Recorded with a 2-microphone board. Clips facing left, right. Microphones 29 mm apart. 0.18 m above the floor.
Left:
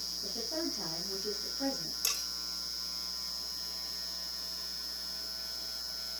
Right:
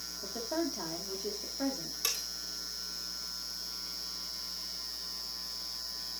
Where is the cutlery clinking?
40° right (ahead or behind), 7.5 m.